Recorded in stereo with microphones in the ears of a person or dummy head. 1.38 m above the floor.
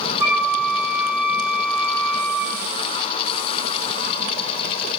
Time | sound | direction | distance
0.2 | a flute | 10° right (ahead or behind) | 3 m